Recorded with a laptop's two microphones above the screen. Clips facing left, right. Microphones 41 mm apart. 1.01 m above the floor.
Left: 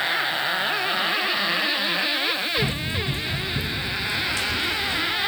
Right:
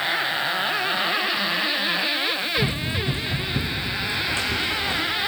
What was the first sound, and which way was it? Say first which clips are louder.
Running footsteps: right 1 dB; 25° right (ahead or behind).